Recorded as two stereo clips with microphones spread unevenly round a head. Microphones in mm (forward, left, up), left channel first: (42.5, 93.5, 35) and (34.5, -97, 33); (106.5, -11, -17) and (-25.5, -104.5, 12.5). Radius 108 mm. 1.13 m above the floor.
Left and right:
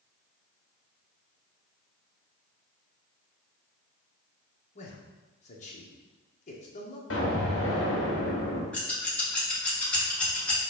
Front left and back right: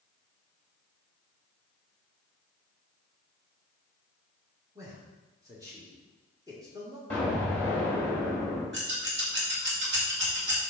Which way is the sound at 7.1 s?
125° left.